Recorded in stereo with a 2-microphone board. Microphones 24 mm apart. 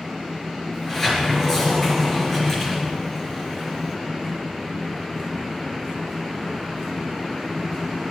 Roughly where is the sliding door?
Centre.